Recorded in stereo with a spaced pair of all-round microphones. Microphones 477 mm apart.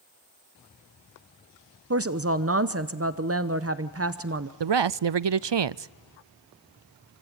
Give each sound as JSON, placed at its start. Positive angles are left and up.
{"t": 1.9, "sound": "a woman speaking", "side_deg": -30, "distance_m": 0.8}
{"t": 4.6, "sound": "a man speaking", "side_deg": -60, "distance_m": 0.5}